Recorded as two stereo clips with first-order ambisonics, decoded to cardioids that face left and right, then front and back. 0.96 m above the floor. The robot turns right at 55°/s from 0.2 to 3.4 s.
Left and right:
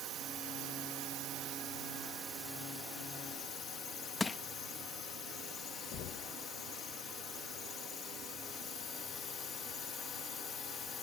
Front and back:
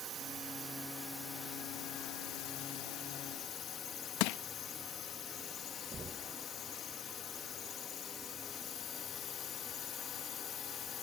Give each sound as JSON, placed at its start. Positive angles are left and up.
{"t": 0.0, "sound": "a drone", "azimuth_deg": -135}
{"t": 4.2, "sound": "crushing", "azimuth_deg": 10}
{"t": 5.9, "sound": "knocking", "azimuth_deg": 110}